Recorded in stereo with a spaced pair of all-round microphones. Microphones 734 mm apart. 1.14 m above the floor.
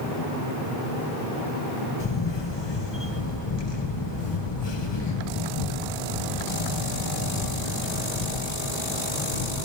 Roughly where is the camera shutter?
Left.